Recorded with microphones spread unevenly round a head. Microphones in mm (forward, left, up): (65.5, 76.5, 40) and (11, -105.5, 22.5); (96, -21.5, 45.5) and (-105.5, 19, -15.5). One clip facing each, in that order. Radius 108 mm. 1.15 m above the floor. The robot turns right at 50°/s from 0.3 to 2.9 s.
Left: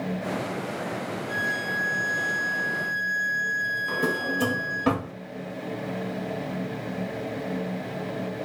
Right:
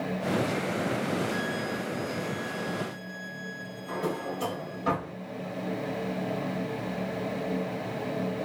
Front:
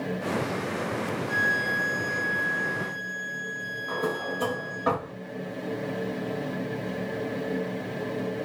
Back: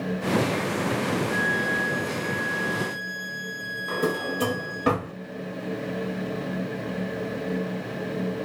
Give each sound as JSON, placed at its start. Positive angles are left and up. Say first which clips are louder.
{"t": 1.3, "sound": "a violin", "louder": "right 2 dB, back 4 dB", "azimuth_deg": 20, "distance_m": 1.7}
{"t": 3.9, "sound": "a drawer", "louder": "left 3 dB, back 3 dB", "azimuth_deg": 115, "distance_m": 3.0}